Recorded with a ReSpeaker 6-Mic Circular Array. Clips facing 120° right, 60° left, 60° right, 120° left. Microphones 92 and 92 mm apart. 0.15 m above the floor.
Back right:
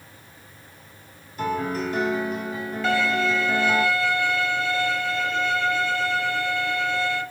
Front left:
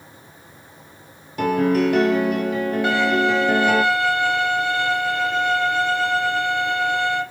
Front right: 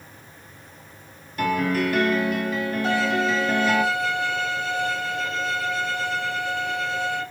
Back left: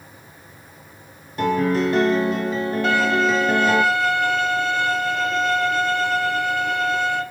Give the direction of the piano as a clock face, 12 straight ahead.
10 o'clock.